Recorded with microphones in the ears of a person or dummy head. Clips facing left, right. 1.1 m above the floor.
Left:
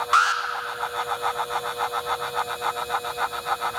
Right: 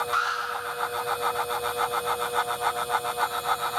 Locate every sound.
0.1 s an alarm: 75° left (ahead or behind), 1.6 m